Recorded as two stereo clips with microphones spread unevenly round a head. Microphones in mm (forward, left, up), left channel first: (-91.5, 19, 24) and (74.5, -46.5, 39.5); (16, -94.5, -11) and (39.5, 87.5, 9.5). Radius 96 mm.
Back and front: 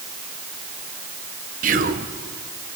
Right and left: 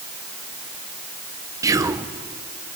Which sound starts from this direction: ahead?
Whispering, at 1.6 s.